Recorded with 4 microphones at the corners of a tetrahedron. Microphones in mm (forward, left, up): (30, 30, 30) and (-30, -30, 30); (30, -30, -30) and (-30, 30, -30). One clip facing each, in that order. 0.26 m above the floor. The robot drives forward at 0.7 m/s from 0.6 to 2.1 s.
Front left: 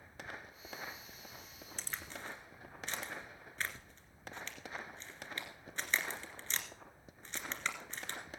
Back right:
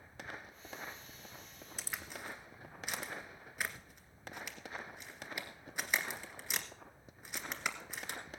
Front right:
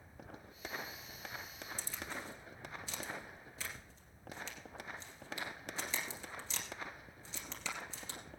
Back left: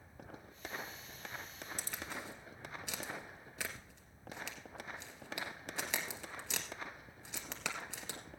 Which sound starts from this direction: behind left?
A crack, at 1.8 s.